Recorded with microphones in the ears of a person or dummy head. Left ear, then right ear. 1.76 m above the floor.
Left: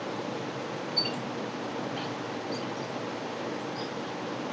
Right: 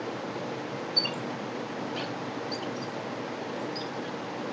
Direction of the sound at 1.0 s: 25° right (ahead or behind).